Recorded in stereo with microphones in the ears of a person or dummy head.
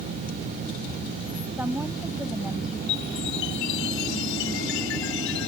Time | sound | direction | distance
1.6 | a woman speaking | 5° right (ahead or behind) | ?
2.9 | a chime | 65° left (ahead or behind) | ?